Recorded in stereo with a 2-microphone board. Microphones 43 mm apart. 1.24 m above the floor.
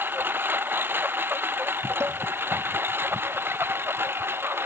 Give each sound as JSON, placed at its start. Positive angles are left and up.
{"t": 0.0, "sound": "a lawn mower", "side_deg": -55}
{"t": 2.0, "sound": "dishes clattering", "side_deg": -80}